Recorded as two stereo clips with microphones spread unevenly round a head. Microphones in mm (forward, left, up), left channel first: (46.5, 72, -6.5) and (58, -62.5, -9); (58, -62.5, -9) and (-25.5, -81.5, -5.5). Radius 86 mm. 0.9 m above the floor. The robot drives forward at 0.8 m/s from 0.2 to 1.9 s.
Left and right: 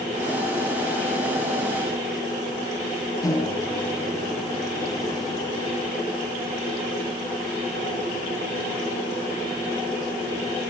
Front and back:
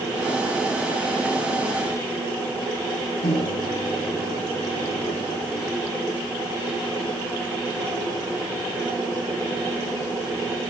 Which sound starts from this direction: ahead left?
A microwave, at 3.2 s.